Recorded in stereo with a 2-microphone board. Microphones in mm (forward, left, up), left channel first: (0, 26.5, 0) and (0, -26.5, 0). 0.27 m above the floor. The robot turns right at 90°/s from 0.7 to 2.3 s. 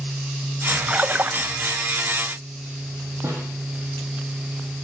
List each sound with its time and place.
0.9 s a splash: 150° right, 0.6 m; by 1.4 s 105° right, 0.6 m
3.2 s a snare drum: 65° right (ahead or behind), 6 m